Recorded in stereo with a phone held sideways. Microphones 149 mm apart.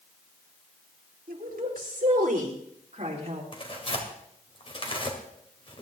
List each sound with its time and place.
1.3 s a woman speaking: 65° right (ahead or behind), 3.5 m; by 3.4 s 45° right (ahead or behind), 4 m
3.5 s tearing paper: 35° left (ahead or behind), 2.5 m